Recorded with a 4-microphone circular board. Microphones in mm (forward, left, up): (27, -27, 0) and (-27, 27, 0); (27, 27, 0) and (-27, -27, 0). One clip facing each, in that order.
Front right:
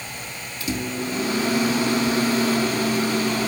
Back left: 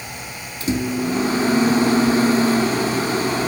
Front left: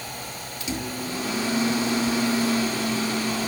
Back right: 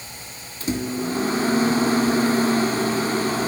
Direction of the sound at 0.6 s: 175° right.